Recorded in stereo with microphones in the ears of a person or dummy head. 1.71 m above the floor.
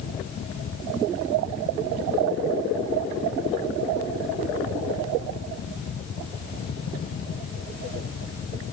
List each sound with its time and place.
Only background noise.